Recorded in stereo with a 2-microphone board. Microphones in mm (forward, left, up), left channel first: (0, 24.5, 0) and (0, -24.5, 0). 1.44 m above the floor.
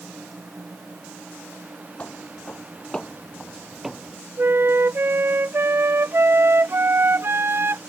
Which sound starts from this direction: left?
Footsteps, at 2.0 s.